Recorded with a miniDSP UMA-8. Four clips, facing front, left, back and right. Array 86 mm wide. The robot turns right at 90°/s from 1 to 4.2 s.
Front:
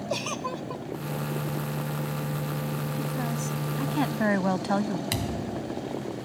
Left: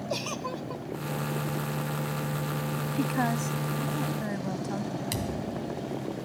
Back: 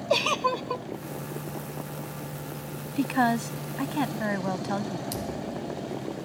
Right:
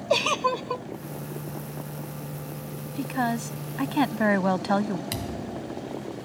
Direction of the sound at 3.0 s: 170° left.